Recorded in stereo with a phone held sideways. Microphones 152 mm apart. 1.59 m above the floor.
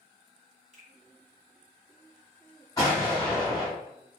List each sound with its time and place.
0.7 s a finger snap: 50° right (ahead or behind), 1.4 m
2.8 s an explosion: 25° left (ahead or behind), 1.1 m